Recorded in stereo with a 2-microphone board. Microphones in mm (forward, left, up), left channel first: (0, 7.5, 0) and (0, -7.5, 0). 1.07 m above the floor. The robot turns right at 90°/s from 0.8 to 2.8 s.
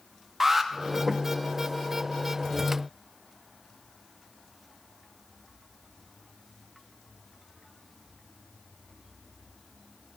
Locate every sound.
0.4 s an alarm: 20° right (ahead or behind), 0.8 m